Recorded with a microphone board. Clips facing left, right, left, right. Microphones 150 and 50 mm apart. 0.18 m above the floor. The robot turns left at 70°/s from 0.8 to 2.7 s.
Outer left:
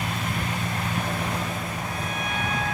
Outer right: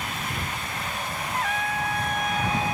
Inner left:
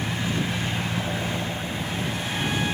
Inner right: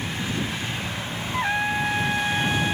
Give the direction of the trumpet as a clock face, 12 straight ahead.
2 o'clock.